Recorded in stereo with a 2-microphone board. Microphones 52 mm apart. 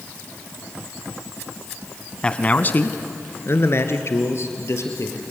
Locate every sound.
2.2 s a man speaking: 20° left (ahead or behind), 1.1 m; by 5.2 s 60° left (ahead or behind), 3.5 m